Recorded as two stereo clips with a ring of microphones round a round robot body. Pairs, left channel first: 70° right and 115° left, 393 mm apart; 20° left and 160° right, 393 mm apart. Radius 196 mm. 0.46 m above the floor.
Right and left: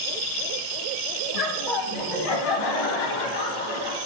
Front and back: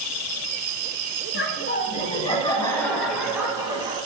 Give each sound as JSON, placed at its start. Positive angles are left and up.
{"t": 1.3, "sound": "laughter", "azimuth_deg": -40, "distance_m": 3.0}